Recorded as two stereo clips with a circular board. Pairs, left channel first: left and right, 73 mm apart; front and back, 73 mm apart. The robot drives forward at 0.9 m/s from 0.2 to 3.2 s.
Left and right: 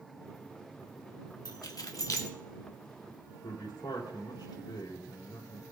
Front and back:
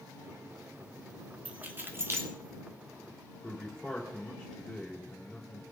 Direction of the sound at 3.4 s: 90° left.